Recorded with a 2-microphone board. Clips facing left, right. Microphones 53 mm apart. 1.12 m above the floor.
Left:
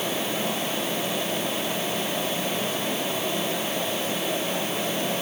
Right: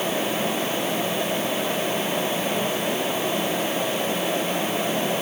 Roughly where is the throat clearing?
I don't hear throat clearing.